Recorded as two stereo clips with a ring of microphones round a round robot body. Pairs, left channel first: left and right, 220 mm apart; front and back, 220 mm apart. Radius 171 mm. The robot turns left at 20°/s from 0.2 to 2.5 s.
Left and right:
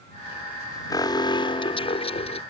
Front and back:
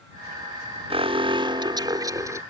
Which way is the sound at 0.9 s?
145° left.